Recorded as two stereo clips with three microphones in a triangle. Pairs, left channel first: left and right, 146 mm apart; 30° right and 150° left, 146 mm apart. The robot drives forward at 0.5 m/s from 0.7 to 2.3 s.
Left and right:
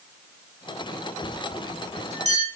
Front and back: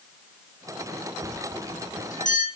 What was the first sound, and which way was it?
A bell, 50° right.